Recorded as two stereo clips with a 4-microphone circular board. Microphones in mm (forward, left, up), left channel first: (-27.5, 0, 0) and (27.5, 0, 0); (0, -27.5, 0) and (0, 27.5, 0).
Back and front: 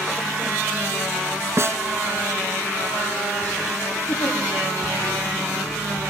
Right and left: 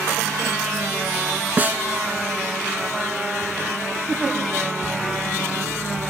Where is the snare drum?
35° left, 0.7 m.